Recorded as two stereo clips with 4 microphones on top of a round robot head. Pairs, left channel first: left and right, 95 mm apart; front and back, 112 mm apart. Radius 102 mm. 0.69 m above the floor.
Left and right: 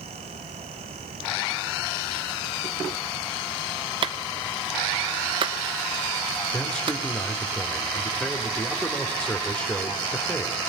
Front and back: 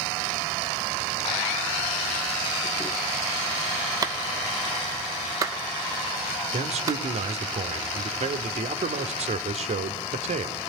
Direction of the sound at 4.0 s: 120° right.